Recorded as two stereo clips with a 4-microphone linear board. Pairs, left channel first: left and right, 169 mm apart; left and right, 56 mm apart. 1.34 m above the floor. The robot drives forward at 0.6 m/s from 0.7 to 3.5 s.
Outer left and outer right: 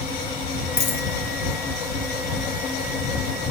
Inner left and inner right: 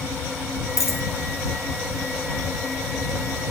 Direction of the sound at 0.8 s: 70° left (ahead or behind).